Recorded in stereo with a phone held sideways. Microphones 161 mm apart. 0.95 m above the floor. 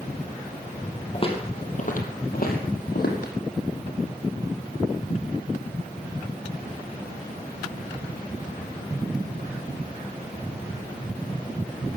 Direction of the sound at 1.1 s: 35° left (ahead or behind).